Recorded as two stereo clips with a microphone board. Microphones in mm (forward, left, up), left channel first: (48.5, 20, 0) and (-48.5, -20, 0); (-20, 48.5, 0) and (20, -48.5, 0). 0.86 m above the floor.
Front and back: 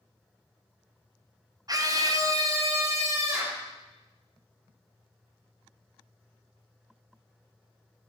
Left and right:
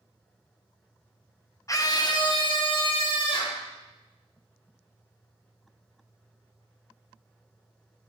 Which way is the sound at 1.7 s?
160° left.